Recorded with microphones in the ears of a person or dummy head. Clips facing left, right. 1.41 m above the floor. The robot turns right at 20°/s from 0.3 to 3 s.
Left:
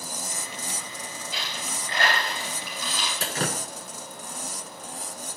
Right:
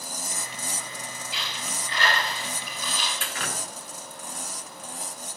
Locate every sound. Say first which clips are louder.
1.3 s a dropped coin: left 1 dB; 40° left (ahead or behind), 5 m; by 3.1 s 75° left (ahead or behind), 5 m
3.2 s dripping: left 5 dB; 35° left (ahead or behind), 0.7 m